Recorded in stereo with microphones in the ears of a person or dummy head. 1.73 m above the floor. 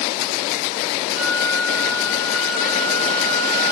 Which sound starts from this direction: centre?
A flute, at 1.1 s.